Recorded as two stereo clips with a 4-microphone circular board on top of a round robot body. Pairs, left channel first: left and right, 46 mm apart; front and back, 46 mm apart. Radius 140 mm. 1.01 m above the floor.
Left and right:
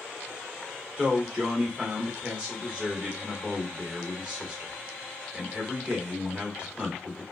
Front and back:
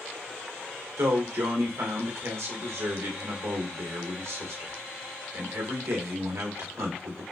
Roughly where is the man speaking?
Behind.